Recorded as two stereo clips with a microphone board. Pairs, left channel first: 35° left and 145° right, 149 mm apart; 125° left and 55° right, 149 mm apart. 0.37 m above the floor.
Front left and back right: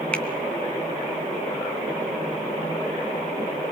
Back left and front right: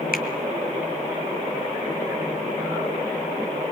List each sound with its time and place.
0.1 s a finger snap: 115° left, 2.5 m